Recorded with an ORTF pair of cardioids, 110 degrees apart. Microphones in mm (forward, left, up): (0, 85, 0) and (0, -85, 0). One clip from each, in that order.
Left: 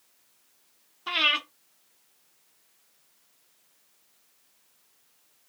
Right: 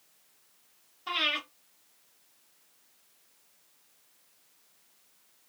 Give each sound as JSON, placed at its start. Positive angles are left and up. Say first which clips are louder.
{"t": 1.1, "sound": "breathing", "louder": "left 5 dB", "azimuth_deg": 40, "distance_m": 1.1}